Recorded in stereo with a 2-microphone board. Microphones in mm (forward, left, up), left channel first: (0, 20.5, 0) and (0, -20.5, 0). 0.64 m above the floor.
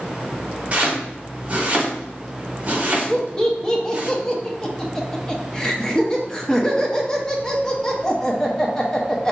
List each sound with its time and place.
0.7 s chopping: 35° right (ahead or behind), 1.0 m
3.1 s laughter: 20° left (ahead or behind), 0.5 m